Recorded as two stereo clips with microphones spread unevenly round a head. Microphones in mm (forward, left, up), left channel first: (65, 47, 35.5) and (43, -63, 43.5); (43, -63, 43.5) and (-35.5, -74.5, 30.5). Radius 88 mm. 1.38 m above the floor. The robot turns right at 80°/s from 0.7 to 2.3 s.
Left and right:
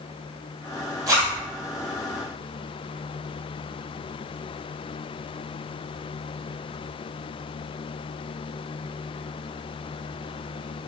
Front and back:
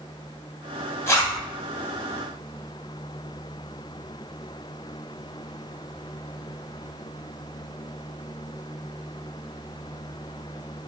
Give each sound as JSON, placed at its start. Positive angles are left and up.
{"t": 1.1, "sound": "a zipper", "azimuth_deg": -45, "distance_m": 4.0}